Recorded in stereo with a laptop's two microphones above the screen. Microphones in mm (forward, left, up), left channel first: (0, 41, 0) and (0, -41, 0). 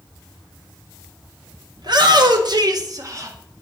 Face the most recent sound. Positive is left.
turn(degrees=-35)  # may be behind; listen again after turning